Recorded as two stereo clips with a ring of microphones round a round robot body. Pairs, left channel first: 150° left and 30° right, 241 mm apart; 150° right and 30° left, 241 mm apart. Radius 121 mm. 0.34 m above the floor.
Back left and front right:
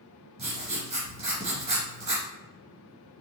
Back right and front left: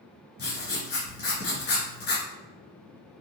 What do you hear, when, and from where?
0.4 s writing: 95° right, 1.9 m